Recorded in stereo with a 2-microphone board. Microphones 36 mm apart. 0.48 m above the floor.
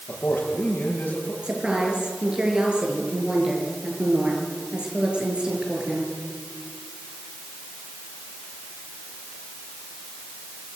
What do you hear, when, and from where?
0.1 s a man speaking: 65° left (ahead or behind), 9 m
1.4 s a woman speaking: 30° right (ahead or behind), 7 m